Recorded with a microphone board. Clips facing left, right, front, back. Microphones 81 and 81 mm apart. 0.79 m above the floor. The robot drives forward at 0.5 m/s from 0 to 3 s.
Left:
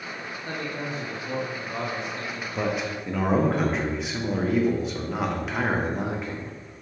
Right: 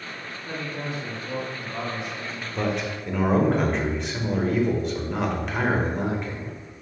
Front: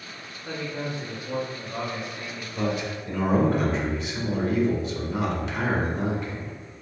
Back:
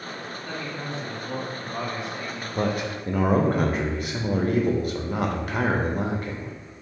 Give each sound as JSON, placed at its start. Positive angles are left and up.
{"t": 0.5, "sound": "a man speaking", "azimuth_deg": 70, "distance_m": 1.3}
{"t": 2.5, "sound": "a man speaking", "azimuth_deg": 170, "distance_m": 0.5}